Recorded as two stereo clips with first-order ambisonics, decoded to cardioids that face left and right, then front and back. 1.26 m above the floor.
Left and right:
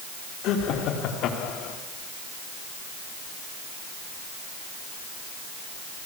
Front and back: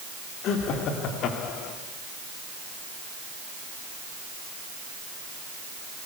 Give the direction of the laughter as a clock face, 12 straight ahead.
10 o'clock.